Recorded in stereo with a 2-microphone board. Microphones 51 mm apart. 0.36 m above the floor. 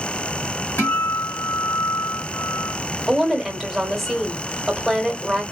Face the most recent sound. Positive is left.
turn(degrees=-5)  # may be behind; listen again after turning